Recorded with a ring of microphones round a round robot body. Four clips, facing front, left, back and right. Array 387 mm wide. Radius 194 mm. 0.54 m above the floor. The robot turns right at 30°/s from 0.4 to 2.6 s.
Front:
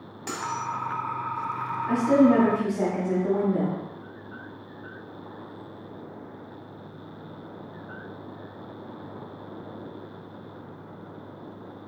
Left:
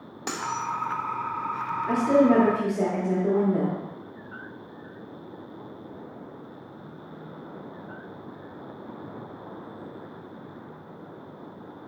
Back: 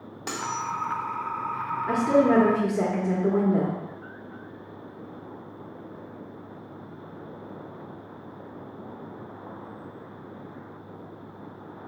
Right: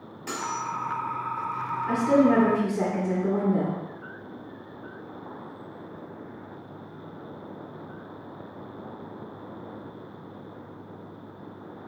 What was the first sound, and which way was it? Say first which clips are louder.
Cutlery clinking: left 1 dB, even; 110° left.